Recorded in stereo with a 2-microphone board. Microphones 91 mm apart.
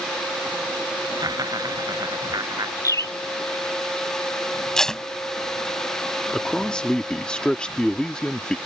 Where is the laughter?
45° right (ahead or behind).